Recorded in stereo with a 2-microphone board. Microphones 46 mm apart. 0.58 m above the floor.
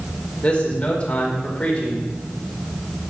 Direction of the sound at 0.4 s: 25° left (ahead or behind).